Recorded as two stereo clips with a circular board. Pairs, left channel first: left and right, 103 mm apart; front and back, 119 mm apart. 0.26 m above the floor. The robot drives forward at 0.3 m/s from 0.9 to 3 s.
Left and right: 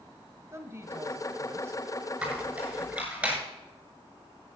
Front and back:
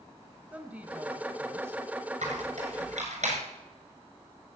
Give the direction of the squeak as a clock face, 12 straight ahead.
6 o'clock.